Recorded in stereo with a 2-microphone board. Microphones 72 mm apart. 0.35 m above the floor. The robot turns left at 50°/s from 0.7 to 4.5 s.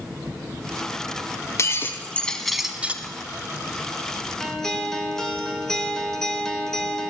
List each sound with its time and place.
1.6 s breaking glass: 50° left, 1.2 m; by 3.0 s 25° right, 1.2 m
4.4 s a guitar: 5° left (ahead or behind), 1.6 m; by 7.1 s 10° left (ahead or behind), 1.6 m